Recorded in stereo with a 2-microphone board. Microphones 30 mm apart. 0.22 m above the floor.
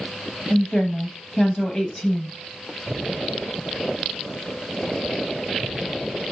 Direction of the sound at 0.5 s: 20° left (ahead or behind).